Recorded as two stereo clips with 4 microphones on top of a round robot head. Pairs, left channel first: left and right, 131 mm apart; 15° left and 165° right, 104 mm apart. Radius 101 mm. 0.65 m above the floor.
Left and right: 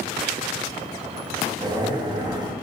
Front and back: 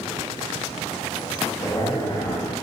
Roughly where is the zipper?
Ahead right.